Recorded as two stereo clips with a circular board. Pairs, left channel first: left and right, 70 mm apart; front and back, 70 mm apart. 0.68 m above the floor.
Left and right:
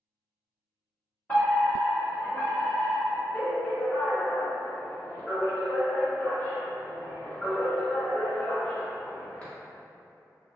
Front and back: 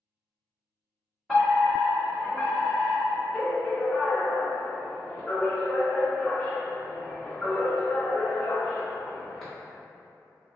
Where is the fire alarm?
75° left, 1.5 m.